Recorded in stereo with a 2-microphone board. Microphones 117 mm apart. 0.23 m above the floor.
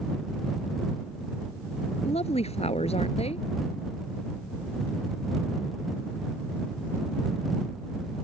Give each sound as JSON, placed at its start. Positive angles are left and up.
{"t": 2.0, "sound": "a woman speaking", "side_deg": 65}